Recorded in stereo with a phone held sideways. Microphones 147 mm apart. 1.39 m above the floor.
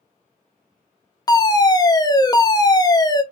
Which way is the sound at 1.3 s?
25° left (ahead or behind).